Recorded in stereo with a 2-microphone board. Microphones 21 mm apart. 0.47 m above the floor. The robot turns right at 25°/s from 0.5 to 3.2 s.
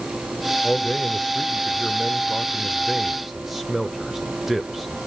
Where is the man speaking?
40° left (ahead or behind), 1.3 m; by 5.0 s 10° right (ahead or behind), 1.3 m.